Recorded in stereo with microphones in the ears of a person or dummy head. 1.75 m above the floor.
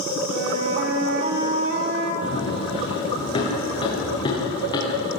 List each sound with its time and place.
0.3 s a flute: 55° right (ahead or behind), 4 m
2.2 s running footsteps: 30° left (ahead or behind), 9 m; by 5.1 s 20° left (ahead or behind), 10 m